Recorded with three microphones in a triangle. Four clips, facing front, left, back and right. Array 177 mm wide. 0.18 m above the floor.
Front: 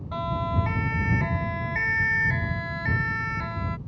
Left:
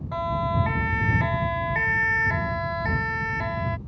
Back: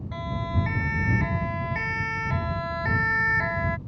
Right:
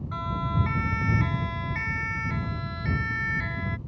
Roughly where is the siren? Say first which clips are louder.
Left 6 dB, front 4 dB; left.